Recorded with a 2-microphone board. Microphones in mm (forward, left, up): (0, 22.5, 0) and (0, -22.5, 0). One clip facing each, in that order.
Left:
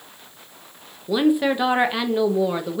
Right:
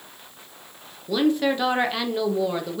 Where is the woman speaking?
15° left (ahead or behind), 0.6 m.